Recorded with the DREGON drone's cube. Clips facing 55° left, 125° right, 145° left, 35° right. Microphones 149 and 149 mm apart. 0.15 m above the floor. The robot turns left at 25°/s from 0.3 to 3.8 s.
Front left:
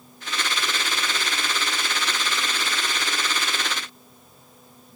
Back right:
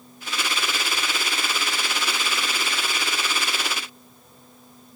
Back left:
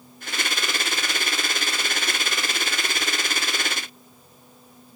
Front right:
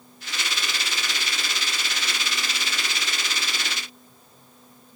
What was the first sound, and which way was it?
Only background noise.